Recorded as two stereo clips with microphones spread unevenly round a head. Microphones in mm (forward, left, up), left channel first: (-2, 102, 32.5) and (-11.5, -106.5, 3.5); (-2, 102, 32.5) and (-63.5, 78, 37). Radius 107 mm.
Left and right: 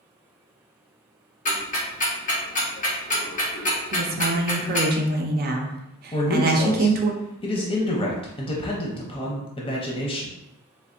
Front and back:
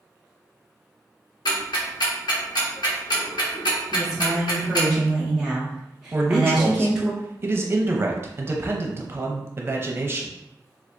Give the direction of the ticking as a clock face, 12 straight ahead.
11 o'clock.